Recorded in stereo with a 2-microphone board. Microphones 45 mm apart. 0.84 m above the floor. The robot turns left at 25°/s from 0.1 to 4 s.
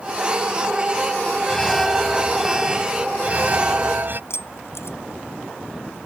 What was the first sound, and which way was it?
An alarm, 15° left.